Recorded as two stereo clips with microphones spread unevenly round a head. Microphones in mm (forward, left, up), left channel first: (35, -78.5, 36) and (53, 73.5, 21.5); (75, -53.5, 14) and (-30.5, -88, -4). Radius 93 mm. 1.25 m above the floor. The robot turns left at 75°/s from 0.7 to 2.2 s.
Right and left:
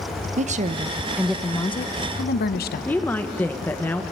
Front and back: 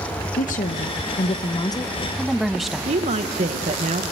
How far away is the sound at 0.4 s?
About 1.0 m.